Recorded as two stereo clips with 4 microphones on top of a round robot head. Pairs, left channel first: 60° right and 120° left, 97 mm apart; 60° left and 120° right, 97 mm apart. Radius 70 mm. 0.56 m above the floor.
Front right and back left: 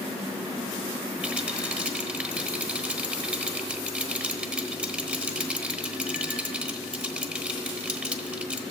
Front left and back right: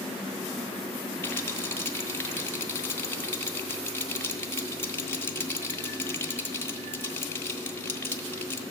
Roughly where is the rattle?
Ahead left.